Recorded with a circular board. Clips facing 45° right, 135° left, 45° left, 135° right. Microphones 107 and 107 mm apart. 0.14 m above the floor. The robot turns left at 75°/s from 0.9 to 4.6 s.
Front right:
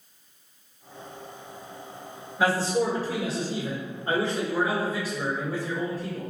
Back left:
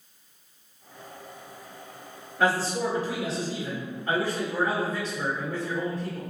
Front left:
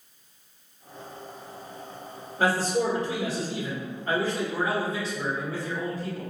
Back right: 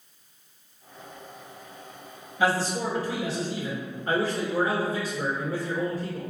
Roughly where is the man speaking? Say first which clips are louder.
Front right 1 dB, front left 1 dB; ahead left.